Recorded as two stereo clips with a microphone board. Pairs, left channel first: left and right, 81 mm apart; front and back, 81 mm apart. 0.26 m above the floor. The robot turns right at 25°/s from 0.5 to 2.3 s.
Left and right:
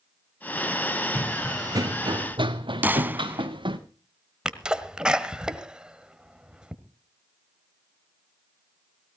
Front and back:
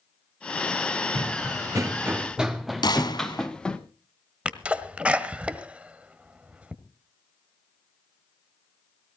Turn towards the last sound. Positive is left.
turn(degrees=-145)